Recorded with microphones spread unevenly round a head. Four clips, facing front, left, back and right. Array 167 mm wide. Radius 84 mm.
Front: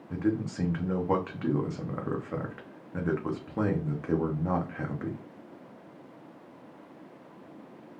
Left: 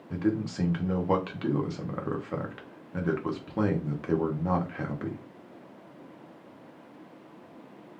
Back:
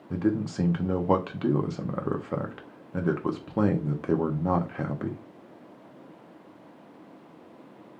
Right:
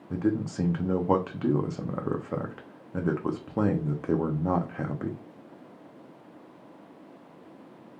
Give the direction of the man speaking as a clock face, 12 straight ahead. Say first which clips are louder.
Right 1 dB, back 3 dB; 5 o'clock.